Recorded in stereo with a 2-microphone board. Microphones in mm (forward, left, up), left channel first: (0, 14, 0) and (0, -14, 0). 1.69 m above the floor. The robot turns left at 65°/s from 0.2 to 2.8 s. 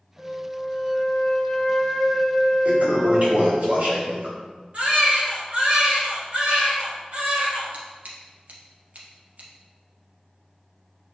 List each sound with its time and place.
0.2 s a flute: 150° left, 2.5 m; by 3.6 s 20° right, 2.5 m
2.6 s a toilet flushing: 45° right (ahead or behind), 2.5 m; by 4.3 s 55° right (ahead or behind), 2.5 m
4.7 s a baby crying: 50° right (ahead or behind), 2.5 m
7.7 s scissors: 60° right (ahead or behind), 1.4 m